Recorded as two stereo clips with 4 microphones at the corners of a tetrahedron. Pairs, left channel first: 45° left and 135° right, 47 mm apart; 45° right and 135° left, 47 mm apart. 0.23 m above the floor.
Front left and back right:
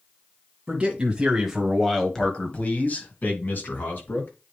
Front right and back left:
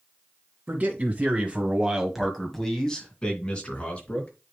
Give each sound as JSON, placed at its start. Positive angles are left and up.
{"t": 0.7, "sound": "a man speaking", "azimuth_deg": 170, "distance_m": 2.5}